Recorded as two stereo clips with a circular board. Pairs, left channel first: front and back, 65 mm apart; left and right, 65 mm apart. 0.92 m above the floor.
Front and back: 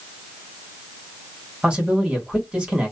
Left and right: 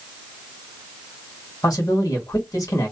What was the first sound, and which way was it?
A man speaking, 105° left.